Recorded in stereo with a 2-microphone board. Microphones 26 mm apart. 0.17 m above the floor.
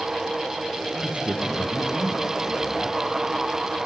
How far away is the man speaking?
About 5.5 m.